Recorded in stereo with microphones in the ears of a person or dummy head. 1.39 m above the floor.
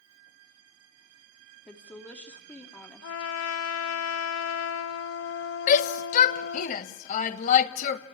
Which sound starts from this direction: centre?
A woman speaking, at 1.7 s.